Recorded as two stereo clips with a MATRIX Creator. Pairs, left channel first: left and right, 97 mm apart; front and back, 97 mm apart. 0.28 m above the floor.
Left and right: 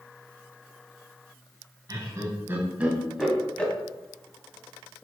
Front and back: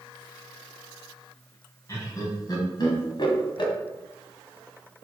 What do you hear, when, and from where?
1.9 s laughter: 50° right, 2 m; by 3.7 s 20° left, 2.0 m